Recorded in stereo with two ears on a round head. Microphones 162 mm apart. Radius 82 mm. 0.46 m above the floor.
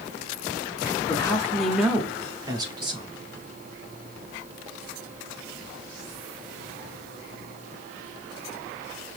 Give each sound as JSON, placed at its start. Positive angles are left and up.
{"t": 1.1, "sound": "a man speaking", "side_deg": 20, "distance_m": 0.9}